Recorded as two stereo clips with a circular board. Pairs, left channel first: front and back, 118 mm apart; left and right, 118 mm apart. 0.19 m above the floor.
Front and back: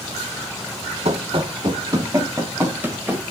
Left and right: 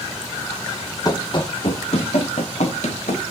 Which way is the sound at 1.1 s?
150° left.